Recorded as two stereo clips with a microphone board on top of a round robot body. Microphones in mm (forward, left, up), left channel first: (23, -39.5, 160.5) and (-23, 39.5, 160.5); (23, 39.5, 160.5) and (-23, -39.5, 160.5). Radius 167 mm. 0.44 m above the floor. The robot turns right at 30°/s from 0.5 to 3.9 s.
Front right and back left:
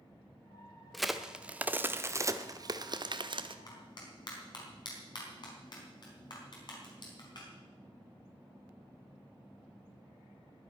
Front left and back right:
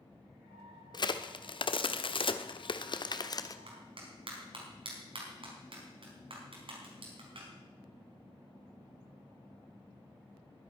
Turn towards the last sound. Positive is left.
turn(degrees=-95)